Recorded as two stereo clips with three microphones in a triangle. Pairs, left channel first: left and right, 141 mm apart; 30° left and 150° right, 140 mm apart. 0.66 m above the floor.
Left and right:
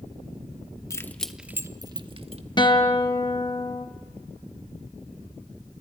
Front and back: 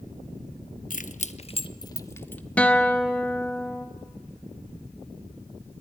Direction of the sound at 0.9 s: 25° left.